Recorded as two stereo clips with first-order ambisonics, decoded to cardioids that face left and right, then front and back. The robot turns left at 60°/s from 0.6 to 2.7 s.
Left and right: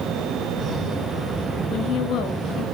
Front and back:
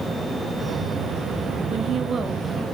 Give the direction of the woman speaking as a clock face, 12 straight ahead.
7 o'clock.